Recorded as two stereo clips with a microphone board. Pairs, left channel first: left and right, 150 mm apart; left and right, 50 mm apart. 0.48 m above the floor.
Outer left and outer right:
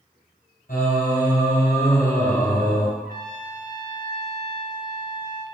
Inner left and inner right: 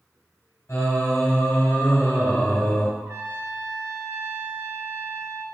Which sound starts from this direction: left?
Singing, at 0.7 s.